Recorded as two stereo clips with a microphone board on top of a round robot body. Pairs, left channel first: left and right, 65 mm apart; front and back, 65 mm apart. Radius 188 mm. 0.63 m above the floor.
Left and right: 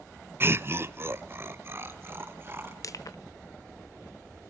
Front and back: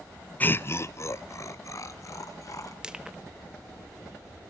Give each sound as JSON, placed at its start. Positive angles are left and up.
{"t": 0.4, "sound": "laughter", "azimuth_deg": -55, "distance_m": 0.8}
{"t": 2.8, "sound": "crushing", "azimuth_deg": 105, "distance_m": 1.1}